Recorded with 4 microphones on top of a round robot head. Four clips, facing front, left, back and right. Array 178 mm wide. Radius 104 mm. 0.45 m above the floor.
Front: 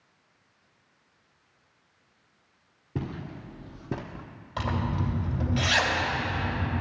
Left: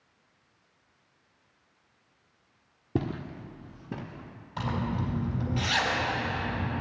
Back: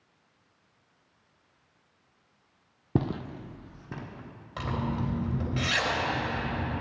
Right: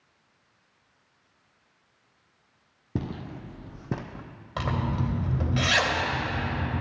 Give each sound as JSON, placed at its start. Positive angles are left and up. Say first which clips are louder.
{"t": 3.0, "sound": "footsteps", "louder": "left 2 dB, back 6 dB", "azimuth_deg": 165, "distance_m": 0.8}
{"t": 4.6, "sound": "a zipper", "louder": "right 2 dB, front 1 dB", "azimuth_deg": -85, "distance_m": 2.5}